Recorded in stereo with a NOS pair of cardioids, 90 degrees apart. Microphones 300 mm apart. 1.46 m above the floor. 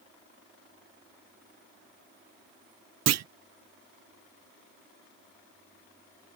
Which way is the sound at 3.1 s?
55° right.